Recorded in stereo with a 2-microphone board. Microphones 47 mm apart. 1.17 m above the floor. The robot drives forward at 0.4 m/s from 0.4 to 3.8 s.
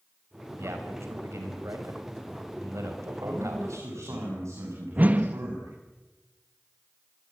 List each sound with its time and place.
0.6 s a man speaking: 80° right, 5.5 m; by 4.2 s 90° right, 5.5 m
3.2 s a man speaking: 80° right, 8.5 m; by 5.7 s 85° right, 8.5 m
5.0 s a whoosh: 35° right (ahead or behind), 1.1 m